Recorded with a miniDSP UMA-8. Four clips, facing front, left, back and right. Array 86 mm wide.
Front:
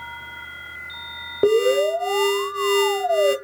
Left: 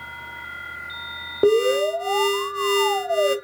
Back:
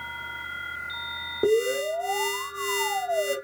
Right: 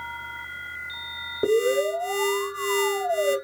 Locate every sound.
1.4 s an alarm: 40° left, 0.8 m